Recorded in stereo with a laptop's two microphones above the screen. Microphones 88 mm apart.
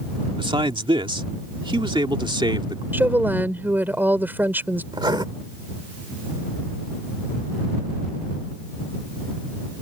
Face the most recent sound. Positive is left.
turn(degrees=-60)  # may be behind; listen again after turning